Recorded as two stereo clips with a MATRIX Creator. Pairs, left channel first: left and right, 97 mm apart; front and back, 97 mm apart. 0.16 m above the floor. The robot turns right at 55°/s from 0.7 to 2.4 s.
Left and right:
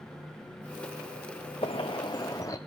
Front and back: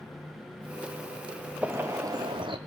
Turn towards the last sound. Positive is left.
turn(degrees=145)